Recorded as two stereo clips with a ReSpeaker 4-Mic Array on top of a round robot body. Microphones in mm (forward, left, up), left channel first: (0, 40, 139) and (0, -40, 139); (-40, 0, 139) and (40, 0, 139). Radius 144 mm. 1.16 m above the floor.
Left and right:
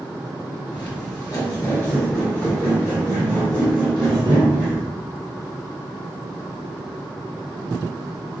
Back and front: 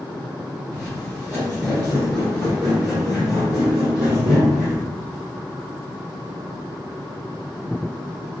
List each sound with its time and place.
0.7 s footsteps: 115° left, 1.3 m; by 4.8 s 70° right, 1.7 m